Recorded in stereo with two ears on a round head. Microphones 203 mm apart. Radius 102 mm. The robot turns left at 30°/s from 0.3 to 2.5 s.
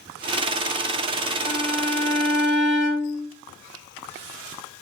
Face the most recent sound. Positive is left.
turn(degrees=0)  # may be behind; listen again after turning